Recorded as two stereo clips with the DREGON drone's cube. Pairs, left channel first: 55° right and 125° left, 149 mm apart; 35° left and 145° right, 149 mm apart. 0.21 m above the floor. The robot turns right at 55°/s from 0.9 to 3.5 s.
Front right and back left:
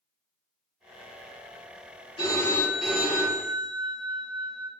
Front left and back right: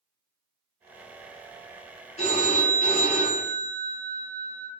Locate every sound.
2.2 s a phone ringing: 5° right, 2.0 m; by 4.7 s 70° left, 2.0 m